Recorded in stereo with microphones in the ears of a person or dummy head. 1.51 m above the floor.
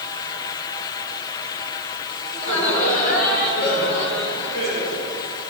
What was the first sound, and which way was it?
Laughter, 30° left (ahead or behind).